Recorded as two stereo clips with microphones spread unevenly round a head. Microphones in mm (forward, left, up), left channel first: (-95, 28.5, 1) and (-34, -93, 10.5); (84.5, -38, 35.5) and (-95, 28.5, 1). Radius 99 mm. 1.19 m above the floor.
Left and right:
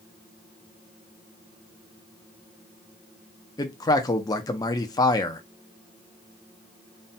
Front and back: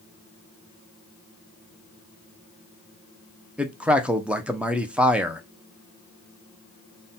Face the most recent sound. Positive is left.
turn(degrees=100)